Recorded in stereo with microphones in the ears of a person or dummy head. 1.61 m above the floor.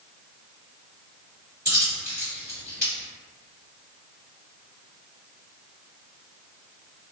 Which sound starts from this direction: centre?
A dropped coin, at 1.6 s.